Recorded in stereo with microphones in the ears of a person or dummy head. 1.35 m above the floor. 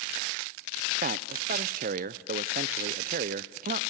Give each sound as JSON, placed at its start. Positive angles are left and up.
{"t": 1.0, "sound": "a man speaking", "side_deg": -45, "distance_m": 0.5}